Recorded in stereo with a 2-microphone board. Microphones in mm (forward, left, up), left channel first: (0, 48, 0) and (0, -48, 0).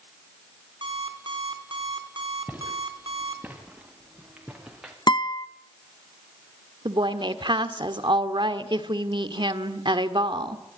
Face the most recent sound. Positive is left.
turn(degrees=-55)  # may be behind; listen again after turning